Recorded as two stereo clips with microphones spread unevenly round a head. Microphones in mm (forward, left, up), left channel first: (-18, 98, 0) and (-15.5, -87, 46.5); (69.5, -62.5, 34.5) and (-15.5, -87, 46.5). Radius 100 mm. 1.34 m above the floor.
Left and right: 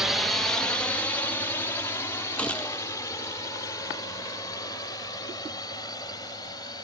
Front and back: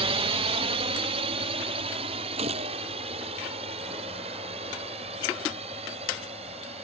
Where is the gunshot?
175° left.